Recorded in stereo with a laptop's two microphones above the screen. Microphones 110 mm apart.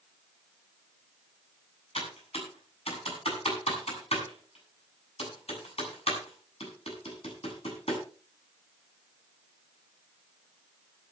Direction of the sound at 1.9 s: 70° left (ahead or behind).